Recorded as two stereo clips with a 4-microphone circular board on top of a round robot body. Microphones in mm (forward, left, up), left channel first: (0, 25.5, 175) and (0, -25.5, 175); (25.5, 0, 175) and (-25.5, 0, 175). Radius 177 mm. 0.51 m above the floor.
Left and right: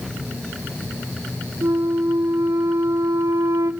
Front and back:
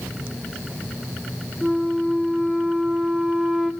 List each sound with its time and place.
1.6 s a flute: 95° right, 0.9 m